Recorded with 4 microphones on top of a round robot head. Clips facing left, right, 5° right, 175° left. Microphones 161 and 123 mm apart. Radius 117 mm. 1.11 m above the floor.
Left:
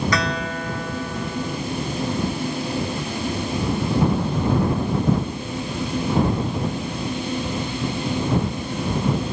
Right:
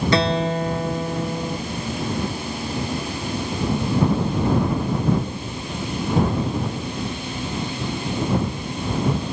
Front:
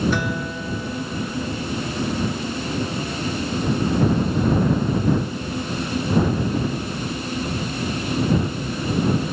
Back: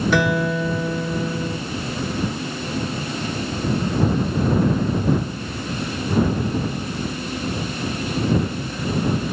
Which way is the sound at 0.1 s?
150° right.